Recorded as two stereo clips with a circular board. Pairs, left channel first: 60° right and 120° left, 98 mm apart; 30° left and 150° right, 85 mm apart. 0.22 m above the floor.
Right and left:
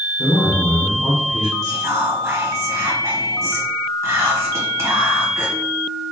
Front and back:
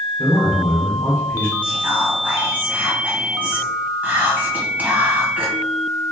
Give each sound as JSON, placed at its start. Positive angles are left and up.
{"t": 0.2, "sound": "a man speaking", "azimuth_deg": 95, "distance_m": 1.8}
{"t": 1.6, "sound": "whispering", "azimuth_deg": 155, "distance_m": 1.2}